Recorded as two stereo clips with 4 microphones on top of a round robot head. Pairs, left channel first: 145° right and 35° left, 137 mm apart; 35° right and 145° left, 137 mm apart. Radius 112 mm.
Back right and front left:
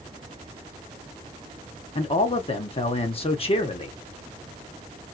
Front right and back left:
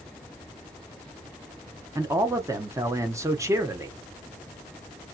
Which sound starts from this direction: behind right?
A man speaking, at 1.9 s.